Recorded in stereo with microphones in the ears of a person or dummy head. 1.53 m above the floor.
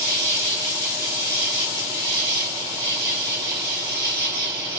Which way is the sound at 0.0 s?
65° right (ahead or behind).